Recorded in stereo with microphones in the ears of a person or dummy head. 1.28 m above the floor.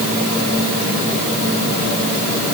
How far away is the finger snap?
No finger snap in this recording.